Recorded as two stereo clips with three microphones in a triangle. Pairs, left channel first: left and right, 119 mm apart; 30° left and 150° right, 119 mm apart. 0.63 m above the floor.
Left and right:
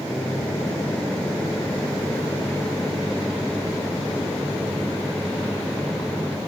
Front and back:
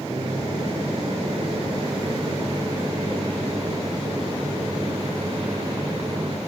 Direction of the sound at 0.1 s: 170° left.